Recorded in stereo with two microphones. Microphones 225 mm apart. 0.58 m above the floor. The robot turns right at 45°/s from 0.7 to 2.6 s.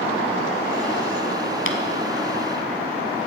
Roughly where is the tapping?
Left.